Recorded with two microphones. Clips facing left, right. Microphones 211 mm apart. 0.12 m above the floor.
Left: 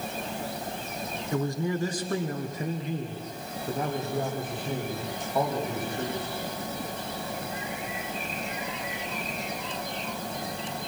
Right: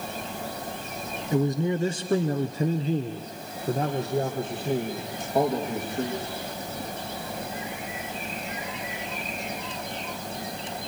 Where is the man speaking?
20° right (ahead or behind), 1.2 m; by 6.4 s 30° right (ahead or behind), 4.5 m.